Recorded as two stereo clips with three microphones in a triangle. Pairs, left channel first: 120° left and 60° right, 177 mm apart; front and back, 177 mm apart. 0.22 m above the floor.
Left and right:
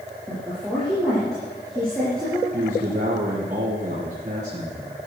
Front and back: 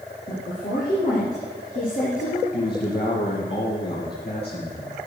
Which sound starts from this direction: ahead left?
A woman speaking, at 0.3 s.